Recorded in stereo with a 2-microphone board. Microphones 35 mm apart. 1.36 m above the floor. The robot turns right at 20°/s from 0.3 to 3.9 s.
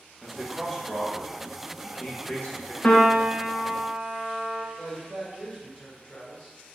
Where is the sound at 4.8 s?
35° left (ahead or behind), 1.7 m.